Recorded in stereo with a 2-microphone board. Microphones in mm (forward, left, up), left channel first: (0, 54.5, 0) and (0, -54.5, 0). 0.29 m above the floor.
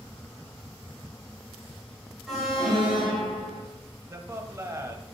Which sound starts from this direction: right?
A man speaking, at 4.1 s.